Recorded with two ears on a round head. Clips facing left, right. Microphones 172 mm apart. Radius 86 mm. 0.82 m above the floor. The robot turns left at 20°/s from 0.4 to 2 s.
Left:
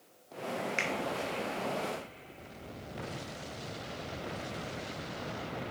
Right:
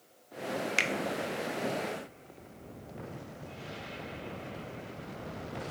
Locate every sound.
0.8 s a finger snap: 45° right (ahead or behind), 0.6 m